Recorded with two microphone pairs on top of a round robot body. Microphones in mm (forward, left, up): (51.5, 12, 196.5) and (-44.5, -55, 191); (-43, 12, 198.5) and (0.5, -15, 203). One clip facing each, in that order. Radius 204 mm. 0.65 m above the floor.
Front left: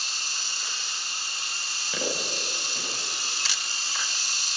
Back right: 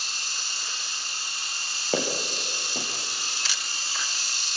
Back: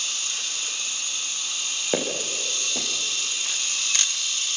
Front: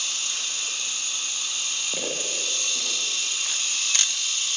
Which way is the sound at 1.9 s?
165° left.